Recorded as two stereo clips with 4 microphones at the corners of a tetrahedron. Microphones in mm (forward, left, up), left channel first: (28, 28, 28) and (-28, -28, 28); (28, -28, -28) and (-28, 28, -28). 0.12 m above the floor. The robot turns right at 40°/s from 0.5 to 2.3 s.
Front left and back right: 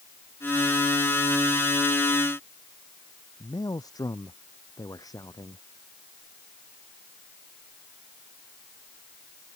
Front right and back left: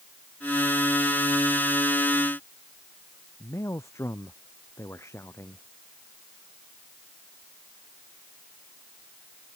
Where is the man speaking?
10° left.